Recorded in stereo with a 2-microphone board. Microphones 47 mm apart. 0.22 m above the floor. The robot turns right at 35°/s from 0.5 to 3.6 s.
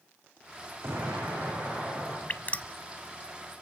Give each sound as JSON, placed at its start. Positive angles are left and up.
{"t": 0.8, "sound": "an explosion", "azimuth_deg": -65, "distance_m": 9.5}
{"t": 2.3, "sound": "dripping", "side_deg": 45, "distance_m": 0.6}